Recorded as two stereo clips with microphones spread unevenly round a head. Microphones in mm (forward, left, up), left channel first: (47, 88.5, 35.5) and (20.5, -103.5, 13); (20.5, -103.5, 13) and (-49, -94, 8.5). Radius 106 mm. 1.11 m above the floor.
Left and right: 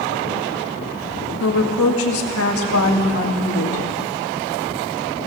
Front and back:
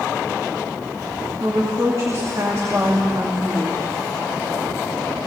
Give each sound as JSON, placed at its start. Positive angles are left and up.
{"t": 1.4, "sound": "a woman speaking", "azimuth_deg": 105, "distance_m": 2.0}